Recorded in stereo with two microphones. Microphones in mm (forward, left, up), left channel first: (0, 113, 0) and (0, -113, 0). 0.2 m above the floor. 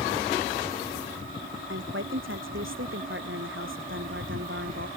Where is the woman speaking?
65° right (ahead or behind).